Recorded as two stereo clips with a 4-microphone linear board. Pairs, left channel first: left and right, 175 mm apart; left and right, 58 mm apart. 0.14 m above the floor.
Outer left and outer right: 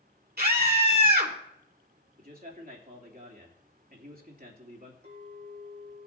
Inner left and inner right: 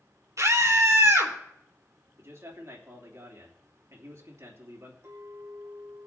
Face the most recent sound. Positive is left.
turn(degrees=-65)  # may be behind; listen again after turning